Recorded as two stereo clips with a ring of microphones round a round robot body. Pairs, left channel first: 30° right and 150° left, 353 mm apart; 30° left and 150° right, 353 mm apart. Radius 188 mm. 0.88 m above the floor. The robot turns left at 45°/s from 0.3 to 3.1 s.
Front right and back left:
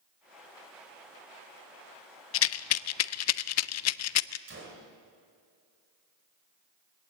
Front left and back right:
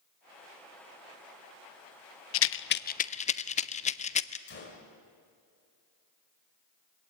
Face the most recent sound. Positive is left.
turn(degrees=90)